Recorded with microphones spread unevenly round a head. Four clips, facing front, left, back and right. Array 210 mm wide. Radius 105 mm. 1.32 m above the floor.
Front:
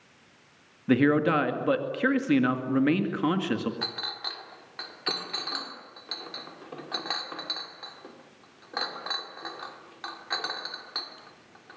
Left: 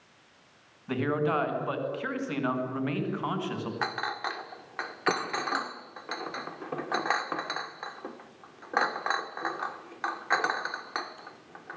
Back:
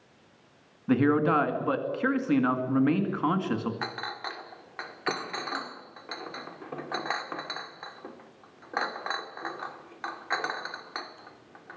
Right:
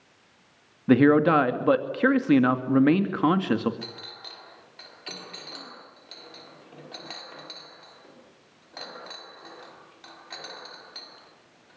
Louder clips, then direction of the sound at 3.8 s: Left 11 dB, back 3 dB; 75° left.